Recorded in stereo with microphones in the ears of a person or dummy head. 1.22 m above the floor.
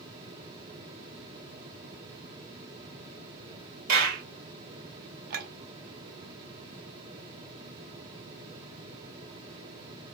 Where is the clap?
55° right (ahead or behind), 2 m.